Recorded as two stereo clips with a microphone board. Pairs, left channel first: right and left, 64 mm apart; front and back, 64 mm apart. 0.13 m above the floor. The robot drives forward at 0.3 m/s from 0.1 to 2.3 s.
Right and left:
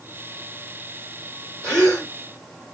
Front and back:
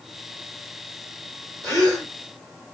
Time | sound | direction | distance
1.6 | a gasp | 155° right | 2.5 m